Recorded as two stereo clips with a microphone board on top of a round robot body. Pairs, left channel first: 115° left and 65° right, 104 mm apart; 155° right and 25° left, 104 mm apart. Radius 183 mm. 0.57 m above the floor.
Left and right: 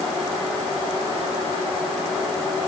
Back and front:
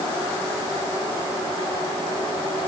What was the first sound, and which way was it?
Only background noise.